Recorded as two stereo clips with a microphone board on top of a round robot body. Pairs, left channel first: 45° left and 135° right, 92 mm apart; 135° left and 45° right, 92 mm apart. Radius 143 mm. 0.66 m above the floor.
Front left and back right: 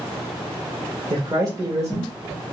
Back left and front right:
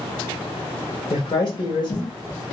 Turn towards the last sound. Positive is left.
turn(degrees=160)